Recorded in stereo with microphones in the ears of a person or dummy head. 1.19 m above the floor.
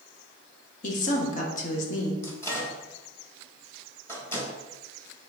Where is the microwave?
20° left (ahead or behind), 1.3 m.